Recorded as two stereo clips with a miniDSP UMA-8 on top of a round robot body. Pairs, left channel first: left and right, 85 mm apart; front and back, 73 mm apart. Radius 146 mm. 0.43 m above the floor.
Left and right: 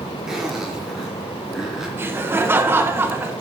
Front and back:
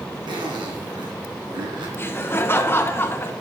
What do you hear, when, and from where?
0.3 s a zipper: 175° right, 2 m
2.0 s laughter: 40° right, 1.6 m